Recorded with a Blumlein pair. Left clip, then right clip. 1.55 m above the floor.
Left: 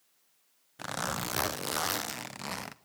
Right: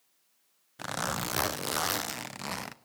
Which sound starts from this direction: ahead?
A zipper, at 0.8 s.